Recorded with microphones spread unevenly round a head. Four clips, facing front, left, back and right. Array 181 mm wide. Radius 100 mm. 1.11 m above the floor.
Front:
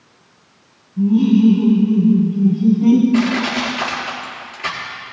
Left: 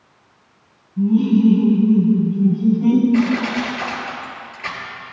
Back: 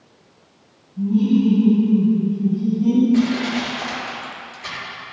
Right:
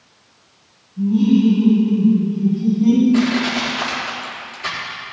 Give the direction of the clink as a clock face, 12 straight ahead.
I don't hear a clink.